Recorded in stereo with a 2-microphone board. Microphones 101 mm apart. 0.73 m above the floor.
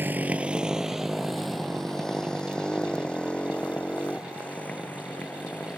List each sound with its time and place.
0.0 s a motorcycle: 20° right (ahead or behind); by 5.8 s 15° left (ahead or behind)